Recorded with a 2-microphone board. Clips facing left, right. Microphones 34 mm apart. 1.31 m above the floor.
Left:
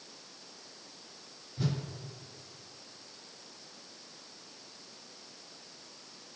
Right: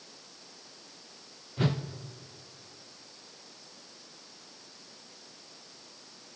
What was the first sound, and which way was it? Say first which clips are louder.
A whoosh: right 5 dB; 45° right (ahead or behind).